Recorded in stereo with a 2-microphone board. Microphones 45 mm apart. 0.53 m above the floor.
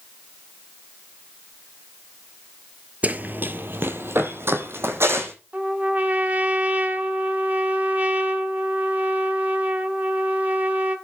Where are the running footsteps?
35° right (ahead or behind), 0.6 m; by 5.3 s 70° right (ahead or behind), 1.8 m.